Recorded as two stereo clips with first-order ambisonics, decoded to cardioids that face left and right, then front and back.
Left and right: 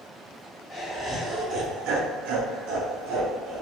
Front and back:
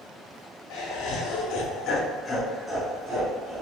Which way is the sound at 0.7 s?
Straight ahead.